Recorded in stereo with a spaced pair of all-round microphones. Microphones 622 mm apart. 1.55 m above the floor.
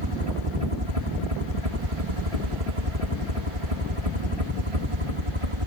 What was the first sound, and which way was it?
A helicopter, 60° right (ahead or behind).